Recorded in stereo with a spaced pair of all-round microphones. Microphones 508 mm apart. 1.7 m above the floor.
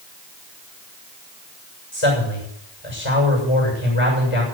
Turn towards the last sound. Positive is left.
turn(degrees=75)  # may be behind; listen again after turning